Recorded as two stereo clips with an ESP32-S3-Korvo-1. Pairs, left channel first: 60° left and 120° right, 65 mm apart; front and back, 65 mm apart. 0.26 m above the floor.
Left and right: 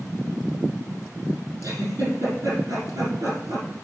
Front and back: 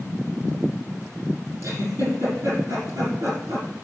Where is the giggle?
150° right, 6.5 m.